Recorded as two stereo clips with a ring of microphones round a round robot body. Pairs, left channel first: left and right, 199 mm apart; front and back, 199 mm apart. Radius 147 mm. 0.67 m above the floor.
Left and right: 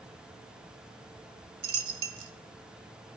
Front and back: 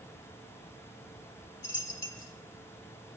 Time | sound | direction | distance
1.6 | a dropped coin | 80° right | 0.6 m